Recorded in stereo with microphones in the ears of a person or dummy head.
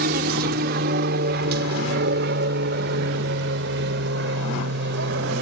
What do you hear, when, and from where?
0.0 s an aircraft: 50° right (ahead or behind); by 5.4 s 60° right (ahead or behind)